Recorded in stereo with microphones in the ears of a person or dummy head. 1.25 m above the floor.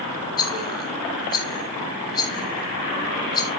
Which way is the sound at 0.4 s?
25° left (ahead or behind).